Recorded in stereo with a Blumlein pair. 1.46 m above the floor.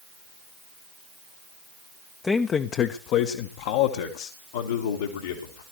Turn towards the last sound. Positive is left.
turn(degrees=70)